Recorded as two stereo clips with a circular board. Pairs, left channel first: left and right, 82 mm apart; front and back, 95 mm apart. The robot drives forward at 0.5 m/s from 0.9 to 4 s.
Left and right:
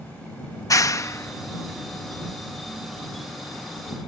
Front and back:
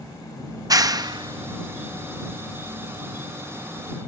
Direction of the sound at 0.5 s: 135° left.